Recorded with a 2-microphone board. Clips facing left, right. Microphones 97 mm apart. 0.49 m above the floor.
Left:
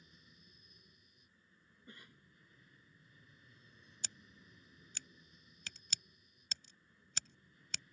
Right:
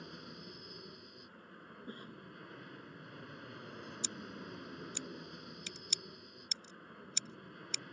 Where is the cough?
40° right (ahead or behind).